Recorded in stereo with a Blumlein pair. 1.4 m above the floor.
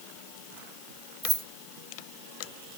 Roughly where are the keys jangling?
Ahead.